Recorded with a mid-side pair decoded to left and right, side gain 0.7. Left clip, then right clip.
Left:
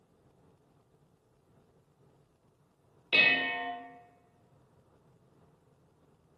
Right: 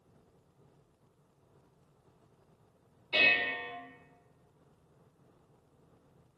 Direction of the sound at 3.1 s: 60° left.